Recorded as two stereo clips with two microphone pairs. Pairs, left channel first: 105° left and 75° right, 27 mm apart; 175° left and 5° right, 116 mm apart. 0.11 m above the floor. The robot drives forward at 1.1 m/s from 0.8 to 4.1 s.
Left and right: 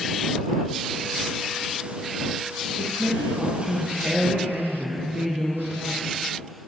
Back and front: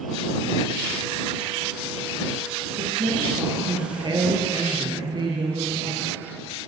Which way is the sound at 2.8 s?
20° right.